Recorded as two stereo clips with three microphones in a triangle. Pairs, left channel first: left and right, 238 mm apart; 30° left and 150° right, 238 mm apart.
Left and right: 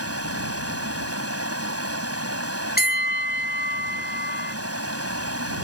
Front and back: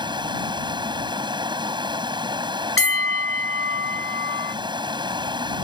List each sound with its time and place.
0.0 s running water: 80° right
2.8 s a bell: 45° left